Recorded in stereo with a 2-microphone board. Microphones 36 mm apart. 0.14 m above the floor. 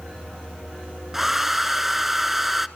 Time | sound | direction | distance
1.1 | a hair dryer | 10° right (ahead or behind) | 0.7 m